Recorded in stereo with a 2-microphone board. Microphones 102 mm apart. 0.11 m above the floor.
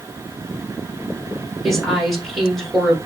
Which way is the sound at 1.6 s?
Centre (ahead or behind).